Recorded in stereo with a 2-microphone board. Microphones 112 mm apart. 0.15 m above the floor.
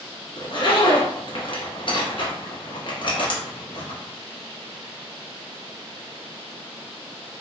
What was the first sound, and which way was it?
A zipper, 55° left (ahead or behind).